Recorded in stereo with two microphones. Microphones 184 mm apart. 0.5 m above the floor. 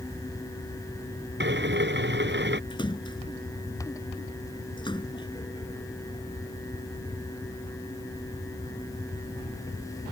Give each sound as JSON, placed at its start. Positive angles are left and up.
{"t": 1.4, "sound": "a drill", "side_deg": -70}
{"t": 2.7, "sound": "a splash", "side_deg": 25}